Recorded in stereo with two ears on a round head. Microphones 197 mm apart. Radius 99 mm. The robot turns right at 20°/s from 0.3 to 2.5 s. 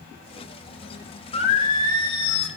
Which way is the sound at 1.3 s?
30° left (ahead or behind).